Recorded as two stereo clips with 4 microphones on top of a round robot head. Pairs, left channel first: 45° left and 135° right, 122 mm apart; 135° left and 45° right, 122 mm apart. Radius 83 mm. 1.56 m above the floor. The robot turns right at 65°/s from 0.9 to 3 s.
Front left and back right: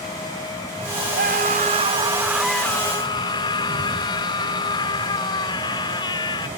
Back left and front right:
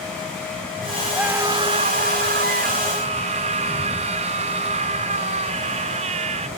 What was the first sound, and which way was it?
A scream, 130° right.